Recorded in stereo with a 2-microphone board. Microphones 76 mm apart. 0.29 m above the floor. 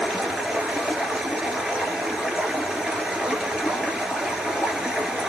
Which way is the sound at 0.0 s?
10° right (ahead or behind).